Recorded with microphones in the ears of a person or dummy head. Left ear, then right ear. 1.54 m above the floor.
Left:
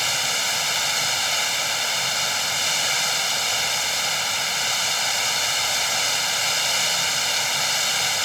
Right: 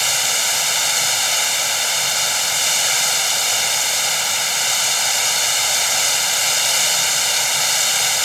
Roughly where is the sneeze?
I don't hear a sneeze.